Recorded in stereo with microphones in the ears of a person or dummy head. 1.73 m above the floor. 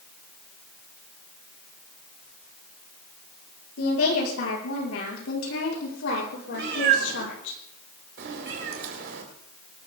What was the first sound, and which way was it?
A woman speaking, 90° left.